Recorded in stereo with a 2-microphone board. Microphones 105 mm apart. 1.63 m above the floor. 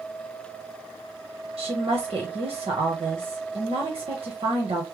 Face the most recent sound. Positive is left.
turn(degrees=-70)  # may be behind; listen again after turning